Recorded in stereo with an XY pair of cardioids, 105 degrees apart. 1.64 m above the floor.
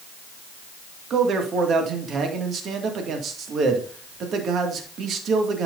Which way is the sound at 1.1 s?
60° right.